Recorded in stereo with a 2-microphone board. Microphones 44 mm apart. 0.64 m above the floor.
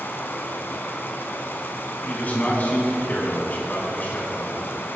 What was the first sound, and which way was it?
Running water, 55° left (ahead or behind).